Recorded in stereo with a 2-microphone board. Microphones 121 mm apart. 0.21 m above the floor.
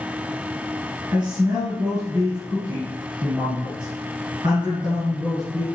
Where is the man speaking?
40° right (ahead or behind), 2.5 m.